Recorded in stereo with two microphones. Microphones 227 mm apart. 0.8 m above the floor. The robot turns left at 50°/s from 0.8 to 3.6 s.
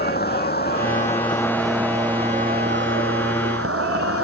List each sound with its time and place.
0.0 s an insect: 45° left; by 4.2 s 95° right